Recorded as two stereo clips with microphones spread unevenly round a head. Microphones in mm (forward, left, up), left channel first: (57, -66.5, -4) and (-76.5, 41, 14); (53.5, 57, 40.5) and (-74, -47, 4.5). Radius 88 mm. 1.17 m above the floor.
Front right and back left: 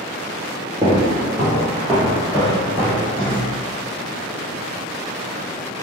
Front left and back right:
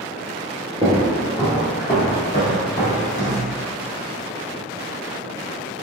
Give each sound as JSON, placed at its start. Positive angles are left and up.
{"t": 0.8, "sound": "footsteps", "azimuth_deg": 170, "distance_m": 1.2}